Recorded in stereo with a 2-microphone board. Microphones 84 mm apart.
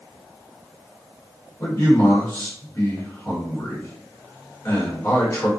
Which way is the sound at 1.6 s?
35° left (ahead or behind).